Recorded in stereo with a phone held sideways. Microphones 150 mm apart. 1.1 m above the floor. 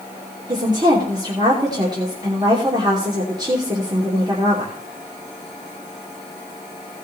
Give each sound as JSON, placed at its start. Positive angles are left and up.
{"t": 0.5, "sound": "a woman speaking", "side_deg": -30, "distance_m": 3.0}